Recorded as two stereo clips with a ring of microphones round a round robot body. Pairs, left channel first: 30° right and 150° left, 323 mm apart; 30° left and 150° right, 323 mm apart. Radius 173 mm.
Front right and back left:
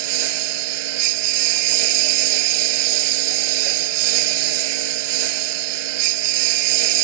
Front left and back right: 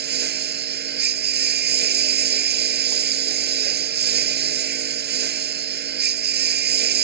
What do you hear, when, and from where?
0.0 s a lawn mower: 150° left